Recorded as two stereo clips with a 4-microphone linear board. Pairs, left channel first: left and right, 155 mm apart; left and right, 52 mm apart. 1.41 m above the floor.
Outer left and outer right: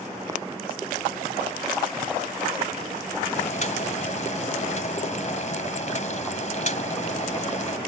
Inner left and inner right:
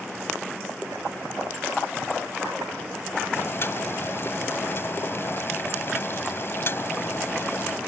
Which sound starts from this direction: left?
Boiling, at 3.4 s.